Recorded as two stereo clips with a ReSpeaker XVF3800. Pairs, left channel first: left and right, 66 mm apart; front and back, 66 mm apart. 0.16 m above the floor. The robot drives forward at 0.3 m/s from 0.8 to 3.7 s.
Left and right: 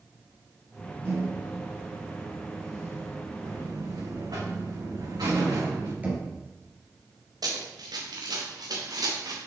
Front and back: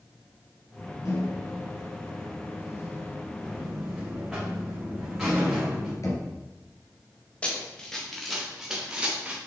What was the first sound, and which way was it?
A microwave, 40° right.